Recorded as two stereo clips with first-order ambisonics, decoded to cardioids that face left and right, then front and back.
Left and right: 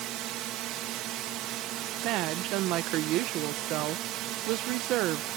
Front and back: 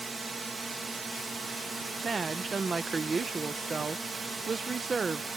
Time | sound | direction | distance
0.0 | a drone | 105° right | ?
2.0 | a woman speaking | 110° right | ?